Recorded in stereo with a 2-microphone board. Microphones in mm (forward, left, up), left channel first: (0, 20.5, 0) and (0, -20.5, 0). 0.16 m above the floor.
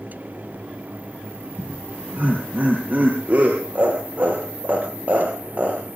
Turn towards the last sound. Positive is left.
turn(degrees=-45)  # may be behind; listen again after turning